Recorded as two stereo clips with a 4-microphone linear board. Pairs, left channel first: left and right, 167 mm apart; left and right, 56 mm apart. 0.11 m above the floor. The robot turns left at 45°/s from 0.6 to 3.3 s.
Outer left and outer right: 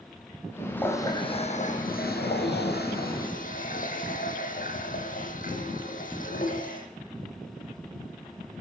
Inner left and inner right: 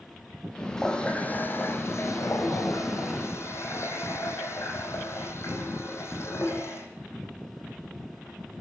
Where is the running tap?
170° left, 3.5 m; by 6.9 s 55° left, 3.5 m.